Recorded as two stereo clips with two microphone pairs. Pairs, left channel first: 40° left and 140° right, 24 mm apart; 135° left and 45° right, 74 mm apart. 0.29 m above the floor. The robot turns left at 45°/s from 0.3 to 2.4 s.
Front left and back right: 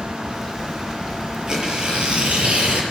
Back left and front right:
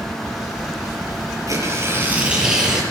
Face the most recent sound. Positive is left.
turn(degrees=-125)